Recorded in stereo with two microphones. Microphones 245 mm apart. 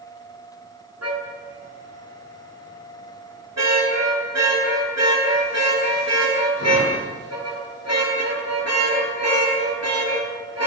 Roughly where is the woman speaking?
No woman speaking in this recording.